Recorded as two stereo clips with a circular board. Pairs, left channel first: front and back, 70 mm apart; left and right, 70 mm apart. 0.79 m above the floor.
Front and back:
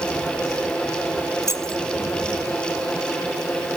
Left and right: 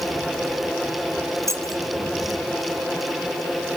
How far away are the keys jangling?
About 2 m.